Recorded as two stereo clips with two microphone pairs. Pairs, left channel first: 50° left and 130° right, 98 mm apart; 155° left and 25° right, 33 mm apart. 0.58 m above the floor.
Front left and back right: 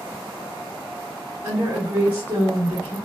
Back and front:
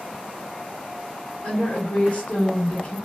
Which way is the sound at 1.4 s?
170° left.